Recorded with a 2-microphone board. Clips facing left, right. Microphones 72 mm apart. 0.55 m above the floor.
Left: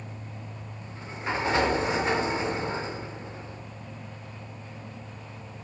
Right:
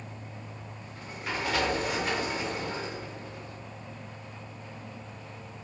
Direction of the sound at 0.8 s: 25° left (ahead or behind).